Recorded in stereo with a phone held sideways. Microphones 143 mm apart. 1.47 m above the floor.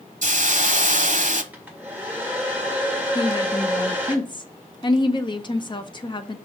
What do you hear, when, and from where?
0.2 s a hiss: 60° right (ahead or behind), 0.8 m
1.5 s a hair dryer: 10° right (ahead or behind), 1.9 m
3.1 s a woman speaking: 35° left (ahead or behind), 0.9 m